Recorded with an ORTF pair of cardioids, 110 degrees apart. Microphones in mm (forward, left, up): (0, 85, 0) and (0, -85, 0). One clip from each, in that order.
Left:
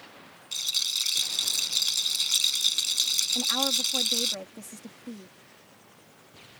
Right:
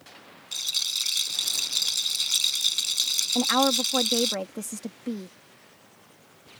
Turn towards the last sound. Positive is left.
turn(degrees=-50)